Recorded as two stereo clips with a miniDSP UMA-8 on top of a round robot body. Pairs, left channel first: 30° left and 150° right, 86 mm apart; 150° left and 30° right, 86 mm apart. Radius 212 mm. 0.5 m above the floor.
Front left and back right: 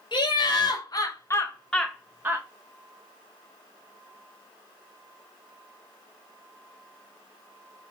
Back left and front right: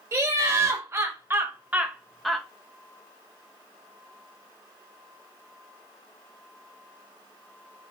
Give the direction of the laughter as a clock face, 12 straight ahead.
11 o'clock.